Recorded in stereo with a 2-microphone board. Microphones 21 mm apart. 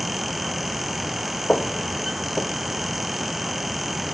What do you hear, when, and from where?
1.5 s footsteps: 55° left (ahead or behind), 1.3 m; by 4.0 s 45° left (ahead or behind), 2.5 m